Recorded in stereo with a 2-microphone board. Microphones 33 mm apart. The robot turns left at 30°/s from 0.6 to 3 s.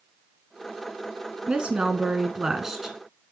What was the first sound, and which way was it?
A woman speaking, 125° right.